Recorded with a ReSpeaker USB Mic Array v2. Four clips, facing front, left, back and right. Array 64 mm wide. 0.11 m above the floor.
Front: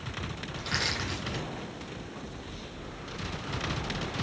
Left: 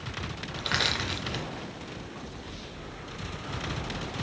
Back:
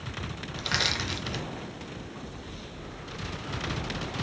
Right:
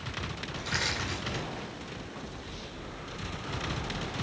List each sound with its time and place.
0.6 s crushing: 110° left, 0.8 m